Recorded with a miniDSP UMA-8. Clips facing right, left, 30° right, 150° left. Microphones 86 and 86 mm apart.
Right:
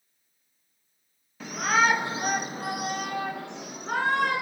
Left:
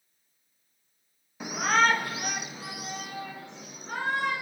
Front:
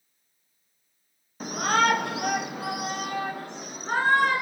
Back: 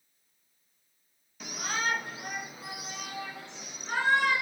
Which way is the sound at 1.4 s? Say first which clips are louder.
Even, front 10 dB; 15° left.